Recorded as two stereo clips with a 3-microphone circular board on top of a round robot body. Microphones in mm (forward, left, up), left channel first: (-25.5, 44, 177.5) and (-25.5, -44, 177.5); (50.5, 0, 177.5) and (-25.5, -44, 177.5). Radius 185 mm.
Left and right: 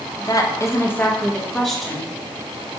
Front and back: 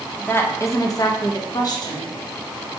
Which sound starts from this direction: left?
A woman speaking, at 0.2 s.